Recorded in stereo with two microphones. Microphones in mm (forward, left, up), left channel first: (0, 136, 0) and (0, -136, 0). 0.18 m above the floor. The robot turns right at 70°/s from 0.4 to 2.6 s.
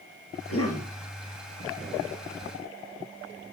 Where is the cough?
60° left, 3 m; by 0.9 s 100° left, 3 m.